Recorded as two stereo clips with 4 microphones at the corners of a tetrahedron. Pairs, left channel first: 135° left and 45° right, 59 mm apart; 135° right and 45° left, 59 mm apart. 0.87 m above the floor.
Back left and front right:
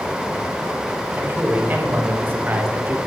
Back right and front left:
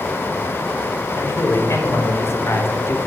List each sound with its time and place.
1.2 s a man speaking: 100° right, 3.5 m